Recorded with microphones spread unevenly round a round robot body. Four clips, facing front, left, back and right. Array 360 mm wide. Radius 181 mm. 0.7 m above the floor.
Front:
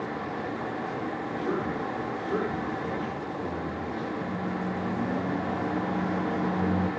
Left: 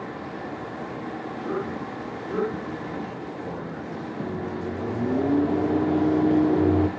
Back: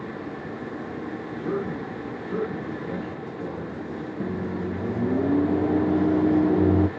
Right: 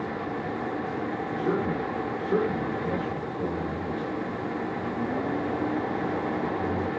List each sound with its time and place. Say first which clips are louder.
1.4 s a man speaking: right 3 dB, back 2 dB; 100° right, 9.5 m; by 4.1 s 95° right, 11 m
4.2 s a microwave: left 1 dB, back 2 dB; 140° left, 1.1 m